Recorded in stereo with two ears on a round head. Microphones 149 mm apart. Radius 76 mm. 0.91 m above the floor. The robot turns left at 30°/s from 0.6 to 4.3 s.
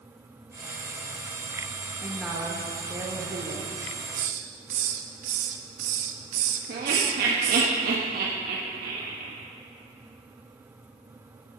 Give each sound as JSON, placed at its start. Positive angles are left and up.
{"t": 2.0, "sound": "a woman speaking", "azimuth_deg": 5, "distance_m": 1.1}
{"t": 3.8, "sound": "a hiss", "side_deg": -45, "distance_m": 0.9}
{"t": 6.7, "sound": "laughter", "side_deg": -55, "distance_m": 1.4}